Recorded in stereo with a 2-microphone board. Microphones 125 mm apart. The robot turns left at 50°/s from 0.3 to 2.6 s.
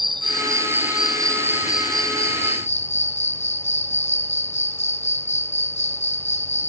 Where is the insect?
140° right; by 6.7 s 105° left.